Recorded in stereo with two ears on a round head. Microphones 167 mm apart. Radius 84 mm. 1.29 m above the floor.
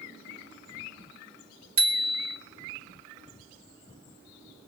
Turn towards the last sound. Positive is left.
turn(degrees=-85)